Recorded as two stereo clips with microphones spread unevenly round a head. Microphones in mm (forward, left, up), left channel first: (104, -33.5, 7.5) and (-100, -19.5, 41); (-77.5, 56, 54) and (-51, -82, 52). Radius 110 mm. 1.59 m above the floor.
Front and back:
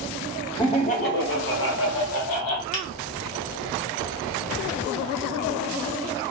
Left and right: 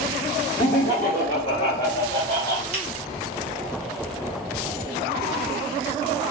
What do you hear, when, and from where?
0.6 s laughter: 75° left, 0.5 m; by 2.6 s 25° left, 1.4 m
2.7 s a finger snap: 60° right, 0.7 m